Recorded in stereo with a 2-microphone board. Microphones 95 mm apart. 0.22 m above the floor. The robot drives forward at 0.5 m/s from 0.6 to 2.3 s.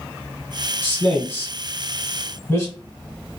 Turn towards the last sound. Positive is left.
turn(degrees=25)  # may be behind; listen again after turning